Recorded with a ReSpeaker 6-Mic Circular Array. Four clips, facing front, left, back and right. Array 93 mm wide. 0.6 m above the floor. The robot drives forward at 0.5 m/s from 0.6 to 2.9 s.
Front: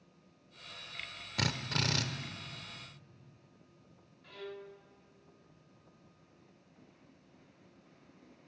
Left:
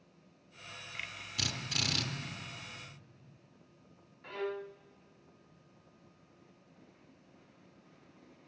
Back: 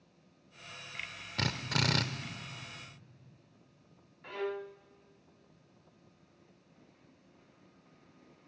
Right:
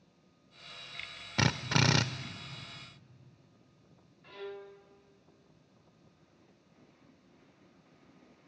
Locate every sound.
1.4 s a drill: 85° right, 0.7 m; by 2.0 s 110° right, 0.8 m
4.2 s a violin: 145° left, 0.5 m